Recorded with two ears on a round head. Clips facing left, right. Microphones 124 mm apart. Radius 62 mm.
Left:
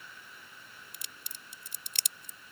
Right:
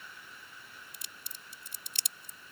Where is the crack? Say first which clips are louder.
Even; 60° left (ahead or behind).